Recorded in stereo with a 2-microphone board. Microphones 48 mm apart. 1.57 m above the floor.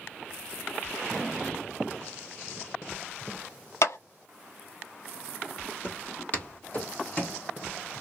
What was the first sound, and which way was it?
A clap, 65° left (ahead or behind).